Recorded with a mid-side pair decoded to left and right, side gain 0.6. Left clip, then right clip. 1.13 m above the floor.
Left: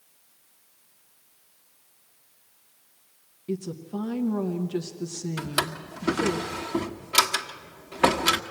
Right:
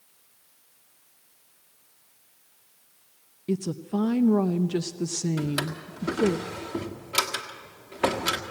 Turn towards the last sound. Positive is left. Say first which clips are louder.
# left 2 dB
turn(degrees=25)